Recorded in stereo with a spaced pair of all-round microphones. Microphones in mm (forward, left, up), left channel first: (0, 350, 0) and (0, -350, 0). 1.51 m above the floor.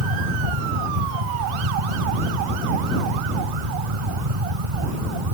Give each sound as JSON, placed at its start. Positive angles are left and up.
{"t": 0.0, "sound": "a fan", "side_deg": -50}